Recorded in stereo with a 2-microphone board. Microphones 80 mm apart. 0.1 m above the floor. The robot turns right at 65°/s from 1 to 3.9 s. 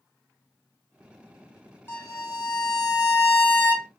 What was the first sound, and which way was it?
A violin, 30° left.